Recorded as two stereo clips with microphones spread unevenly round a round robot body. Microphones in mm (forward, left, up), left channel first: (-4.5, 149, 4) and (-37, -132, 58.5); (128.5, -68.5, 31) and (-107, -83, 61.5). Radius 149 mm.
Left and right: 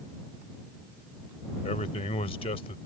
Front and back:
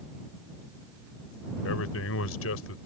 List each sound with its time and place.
1.6 s a man speaking: 20° left